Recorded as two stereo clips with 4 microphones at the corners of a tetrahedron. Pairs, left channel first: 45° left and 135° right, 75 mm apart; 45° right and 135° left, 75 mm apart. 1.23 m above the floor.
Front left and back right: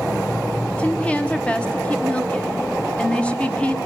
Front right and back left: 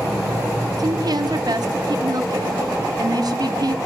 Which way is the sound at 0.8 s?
120° left.